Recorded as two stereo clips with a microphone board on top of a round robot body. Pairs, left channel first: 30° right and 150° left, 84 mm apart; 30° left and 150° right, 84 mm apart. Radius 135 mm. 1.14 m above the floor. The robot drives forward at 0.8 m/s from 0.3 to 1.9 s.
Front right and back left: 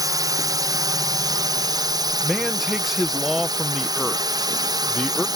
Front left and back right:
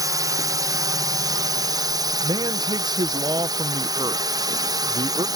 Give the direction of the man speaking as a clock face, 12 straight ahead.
4 o'clock.